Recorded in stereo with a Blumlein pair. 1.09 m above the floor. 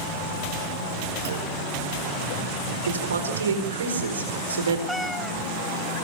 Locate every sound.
1.2 s a clunk: 60° right, 5.5 m
2.9 s a man speaking: 70° right, 4.5 m
4.9 s a cat meowing: straight ahead, 1.0 m